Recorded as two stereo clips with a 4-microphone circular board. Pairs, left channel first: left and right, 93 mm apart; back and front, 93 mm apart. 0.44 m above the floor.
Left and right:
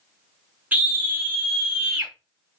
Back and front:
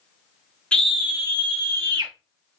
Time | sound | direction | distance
0.7 | a scream | 125° right | 0.9 m